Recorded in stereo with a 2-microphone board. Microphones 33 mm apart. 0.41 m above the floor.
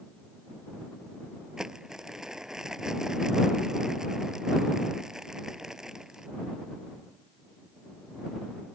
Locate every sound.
1.6 s crumpling: 15° right (ahead or behind)